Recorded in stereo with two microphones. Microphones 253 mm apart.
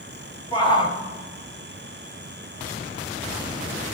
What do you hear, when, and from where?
0.5 s a shout: 20° left (ahead or behind), 3.5 m